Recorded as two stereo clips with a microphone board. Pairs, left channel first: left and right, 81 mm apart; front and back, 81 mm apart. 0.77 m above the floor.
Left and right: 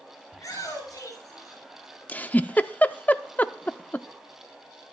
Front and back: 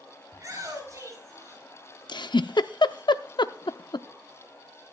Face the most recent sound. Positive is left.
turn(degrees=20)